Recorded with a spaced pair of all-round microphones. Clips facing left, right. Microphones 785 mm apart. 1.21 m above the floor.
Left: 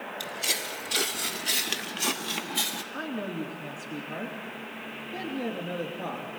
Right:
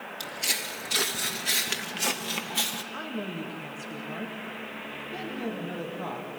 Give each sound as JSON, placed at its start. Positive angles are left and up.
{"t": 0.2, "sound": "footsteps", "side_deg": -30, "distance_m": 1.7}
{"t": 2.9, "sound": "a woman speaking", "side_deg": -35, "distance_m": 3.0}